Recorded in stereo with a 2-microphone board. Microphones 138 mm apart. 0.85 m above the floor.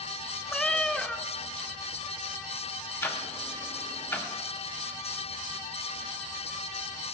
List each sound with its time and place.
0.5 s a cat meowing: 5° left (ahead or behind), 0.6 m
3.0 s ticking: 20° left (ahead or behind), 1.6 m